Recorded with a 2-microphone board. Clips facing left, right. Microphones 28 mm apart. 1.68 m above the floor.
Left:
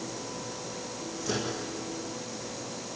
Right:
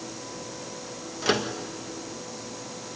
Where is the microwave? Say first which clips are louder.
Right 7 dB; 80° right, 1.9 m.